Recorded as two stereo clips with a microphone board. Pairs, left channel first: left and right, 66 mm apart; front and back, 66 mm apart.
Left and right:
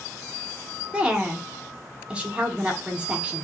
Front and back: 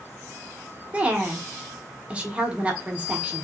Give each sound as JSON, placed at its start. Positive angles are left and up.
{"t": 0.9, "sound": "a woman speaking", "azimuth_deg": -135, "distance_m": 0.8}